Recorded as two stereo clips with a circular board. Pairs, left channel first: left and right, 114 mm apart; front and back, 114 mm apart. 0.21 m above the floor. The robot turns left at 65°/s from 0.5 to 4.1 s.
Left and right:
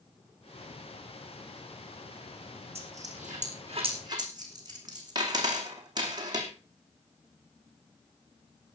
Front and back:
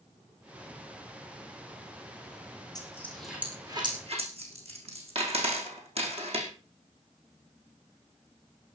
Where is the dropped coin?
55° right, 5 m; by 6.5 s 145° right, 5 m.